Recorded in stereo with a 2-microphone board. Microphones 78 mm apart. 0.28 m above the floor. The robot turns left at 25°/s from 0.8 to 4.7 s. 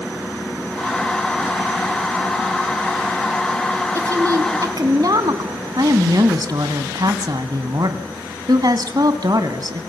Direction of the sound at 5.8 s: 55° right (ahead or behind).